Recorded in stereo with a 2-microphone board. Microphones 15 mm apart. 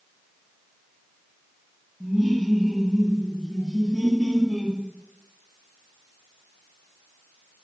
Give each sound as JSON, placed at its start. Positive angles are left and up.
{"t": 2.0, "sound": "laughter", "side_deg": 0, "distance_m": 0.5}